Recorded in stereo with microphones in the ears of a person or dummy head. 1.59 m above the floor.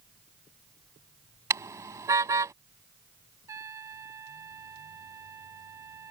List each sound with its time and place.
1.5 s a car horn: 20° right (ahead or behind)
3.5 s a trumpet: 15° right (ahead or behind)